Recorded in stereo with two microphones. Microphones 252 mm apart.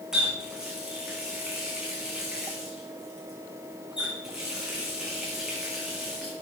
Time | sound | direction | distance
0.1 | a running tap | centre (ahead or behind) | 6 m